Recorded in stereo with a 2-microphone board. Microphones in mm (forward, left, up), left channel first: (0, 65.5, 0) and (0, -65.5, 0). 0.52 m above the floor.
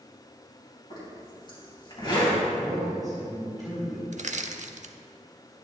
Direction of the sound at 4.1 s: 65° right (ahead or behind).